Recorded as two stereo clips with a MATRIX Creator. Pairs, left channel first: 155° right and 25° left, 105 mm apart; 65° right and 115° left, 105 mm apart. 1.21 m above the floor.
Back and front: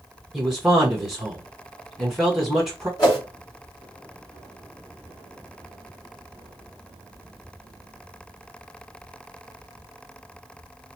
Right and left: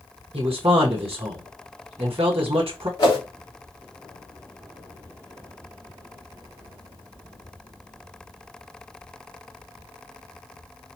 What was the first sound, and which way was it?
A man speaking, 110° left.